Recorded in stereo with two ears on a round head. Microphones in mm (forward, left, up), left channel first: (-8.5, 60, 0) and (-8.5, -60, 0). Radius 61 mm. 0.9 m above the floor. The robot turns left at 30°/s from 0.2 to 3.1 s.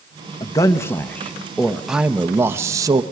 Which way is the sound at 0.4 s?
40° left.